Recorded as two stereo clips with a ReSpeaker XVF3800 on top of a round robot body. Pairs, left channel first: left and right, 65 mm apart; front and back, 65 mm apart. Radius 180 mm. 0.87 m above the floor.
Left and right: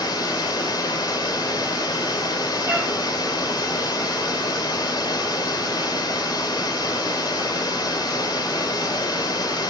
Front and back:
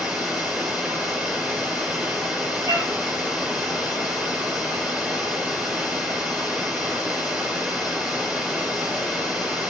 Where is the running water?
100° left, 3 m.